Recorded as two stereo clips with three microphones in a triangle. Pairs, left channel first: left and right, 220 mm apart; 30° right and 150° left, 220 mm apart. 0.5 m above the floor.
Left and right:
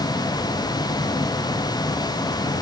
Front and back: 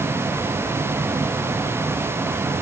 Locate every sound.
Only background noise.